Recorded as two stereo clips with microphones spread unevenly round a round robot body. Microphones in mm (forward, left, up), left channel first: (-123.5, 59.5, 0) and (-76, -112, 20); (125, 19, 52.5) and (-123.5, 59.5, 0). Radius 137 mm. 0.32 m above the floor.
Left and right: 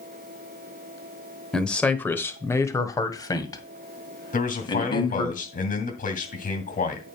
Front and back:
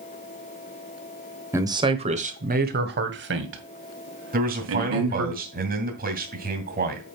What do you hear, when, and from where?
1.5 s a man speaking: 170° left, 1.1 m; by 5.3 s 165° left, 3 m
4.3 s a man speaking: 130° left, 2.5 m